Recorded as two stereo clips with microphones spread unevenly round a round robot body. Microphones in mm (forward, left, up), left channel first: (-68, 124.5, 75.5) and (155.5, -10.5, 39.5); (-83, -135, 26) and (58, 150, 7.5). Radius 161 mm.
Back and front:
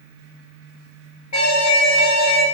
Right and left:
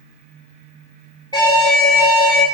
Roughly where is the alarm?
Behind.